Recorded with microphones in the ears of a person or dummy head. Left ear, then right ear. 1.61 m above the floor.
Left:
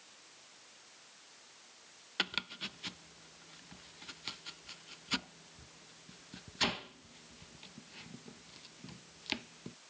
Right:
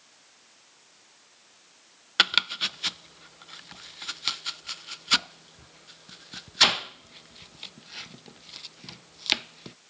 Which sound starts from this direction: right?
Chopping, at 2.2 s.